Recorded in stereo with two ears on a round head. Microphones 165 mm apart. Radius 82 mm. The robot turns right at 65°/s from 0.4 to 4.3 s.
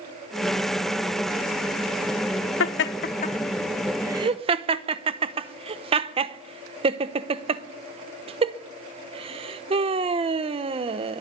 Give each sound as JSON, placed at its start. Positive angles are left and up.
{"t": 2.6, "sound": "laughter", "side_deg": 75, "distance_m": 0.8}